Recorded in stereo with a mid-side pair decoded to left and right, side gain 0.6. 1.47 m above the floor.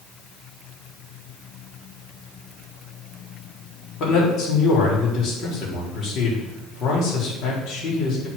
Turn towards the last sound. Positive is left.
turn(degrees=55)